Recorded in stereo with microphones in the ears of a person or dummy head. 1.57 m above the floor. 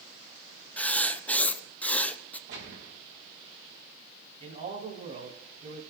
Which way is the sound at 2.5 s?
70° right (ahead or behind).